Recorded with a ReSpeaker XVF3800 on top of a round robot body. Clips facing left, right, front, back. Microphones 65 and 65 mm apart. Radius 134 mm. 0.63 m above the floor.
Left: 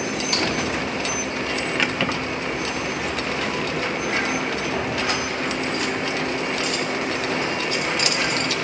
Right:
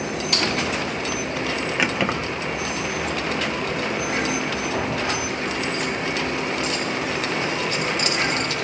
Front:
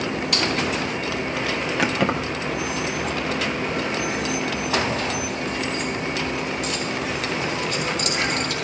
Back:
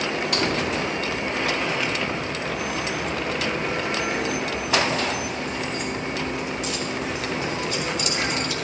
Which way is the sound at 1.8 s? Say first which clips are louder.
Right 2 dB, front 4 dB; 10° right.